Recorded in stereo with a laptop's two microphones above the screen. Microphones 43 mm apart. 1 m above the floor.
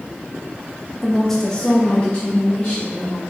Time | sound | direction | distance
1.0 | a woman speaking | centre (ahead or behind) | 0.8 m